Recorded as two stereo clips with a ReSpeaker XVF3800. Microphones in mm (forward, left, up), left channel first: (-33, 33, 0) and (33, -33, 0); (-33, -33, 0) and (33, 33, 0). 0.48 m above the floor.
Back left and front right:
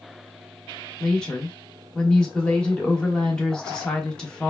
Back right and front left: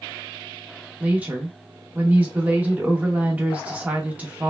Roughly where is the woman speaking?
Left.